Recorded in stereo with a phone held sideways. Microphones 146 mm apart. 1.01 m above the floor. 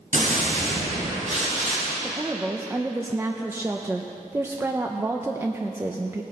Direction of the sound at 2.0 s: 15° right (ahead or behind).